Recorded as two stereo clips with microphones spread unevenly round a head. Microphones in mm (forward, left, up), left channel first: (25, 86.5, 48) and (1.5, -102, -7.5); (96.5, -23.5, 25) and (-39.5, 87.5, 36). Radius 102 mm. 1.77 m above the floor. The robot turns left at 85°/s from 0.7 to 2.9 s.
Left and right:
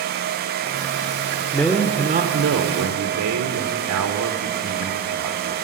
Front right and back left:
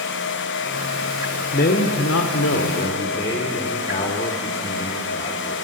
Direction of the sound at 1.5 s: 15° left.